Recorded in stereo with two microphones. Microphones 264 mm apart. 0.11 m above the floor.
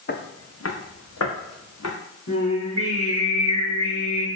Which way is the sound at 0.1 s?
40° left (ahead or behind).